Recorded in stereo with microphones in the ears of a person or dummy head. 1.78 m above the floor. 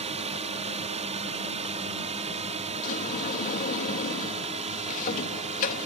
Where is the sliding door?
45° left (ahead or behind).